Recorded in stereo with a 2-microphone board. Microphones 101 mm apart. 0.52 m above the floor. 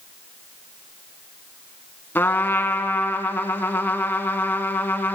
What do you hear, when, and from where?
2.1 s a trumpet: 20° left (ahead or behind), 0.7 m